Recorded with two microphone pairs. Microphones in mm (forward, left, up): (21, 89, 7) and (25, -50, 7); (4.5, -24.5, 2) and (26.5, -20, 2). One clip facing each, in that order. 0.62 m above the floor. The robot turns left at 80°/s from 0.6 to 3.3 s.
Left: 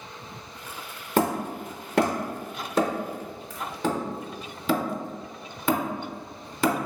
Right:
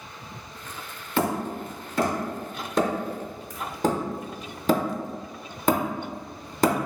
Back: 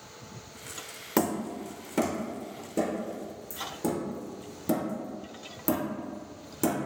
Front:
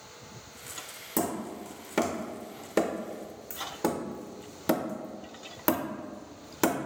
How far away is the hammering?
About 0.5 m.